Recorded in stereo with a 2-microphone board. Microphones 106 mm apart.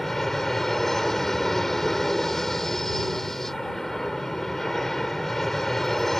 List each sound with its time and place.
0.0 s an aircraft: 5° left (ahead or behind)